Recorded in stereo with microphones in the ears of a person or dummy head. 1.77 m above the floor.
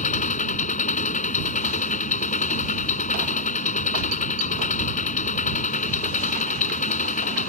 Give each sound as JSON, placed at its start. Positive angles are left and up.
{"t": 0.0, "sound": "an engine running", "side_deg": 45}